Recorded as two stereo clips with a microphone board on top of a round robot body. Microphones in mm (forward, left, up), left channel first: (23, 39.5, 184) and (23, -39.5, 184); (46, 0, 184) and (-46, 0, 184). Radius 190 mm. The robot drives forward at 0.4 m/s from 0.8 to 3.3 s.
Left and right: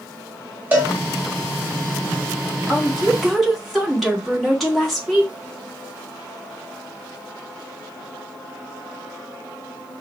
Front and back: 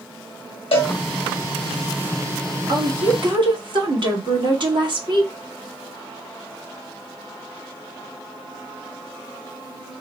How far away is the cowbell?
About 1.1 m.